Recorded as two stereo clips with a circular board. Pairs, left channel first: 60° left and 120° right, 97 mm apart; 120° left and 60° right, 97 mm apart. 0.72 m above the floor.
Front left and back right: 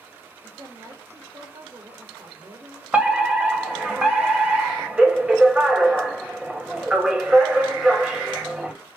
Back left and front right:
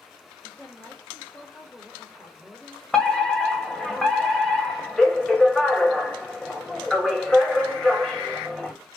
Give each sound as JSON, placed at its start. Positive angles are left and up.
{"t": 0.4, "sound": "a woman speaking", "azimuth_deg": -160, "distance_m": 3.0}
{"t": 2.9, "sound": "a fire alarm", "azimuth_deg": -170, "distance_m": 1.8}